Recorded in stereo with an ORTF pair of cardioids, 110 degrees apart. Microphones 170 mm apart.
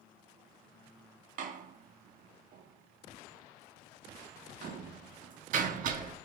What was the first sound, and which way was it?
A door slam, 55° right.